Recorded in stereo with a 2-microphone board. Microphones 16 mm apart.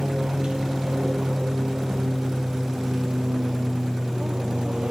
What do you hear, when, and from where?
0.0 s an aircraft: 60° right (ahead or behind); by 4.9 s 65° right (ahead or behind)